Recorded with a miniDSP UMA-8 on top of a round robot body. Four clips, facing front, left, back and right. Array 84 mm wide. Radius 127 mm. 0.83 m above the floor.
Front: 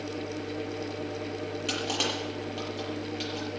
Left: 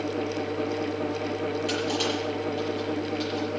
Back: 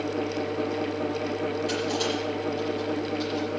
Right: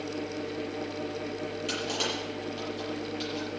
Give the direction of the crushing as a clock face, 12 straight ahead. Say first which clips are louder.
Left 5 dB, back 5 dB; 12 o'clock.